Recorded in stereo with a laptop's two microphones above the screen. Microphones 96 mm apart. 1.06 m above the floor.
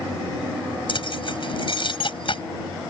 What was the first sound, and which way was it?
Keys jangling, 60° left (ahead or behind).